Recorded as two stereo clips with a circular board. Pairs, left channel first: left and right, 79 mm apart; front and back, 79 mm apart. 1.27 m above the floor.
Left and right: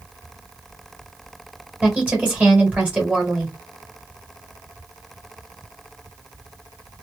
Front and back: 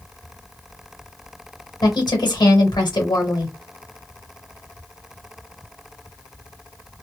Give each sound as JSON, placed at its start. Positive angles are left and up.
{"t": 1.8, "sound": "a woman speaking", "azimuth_deg": -20, "distance_m": 1.2}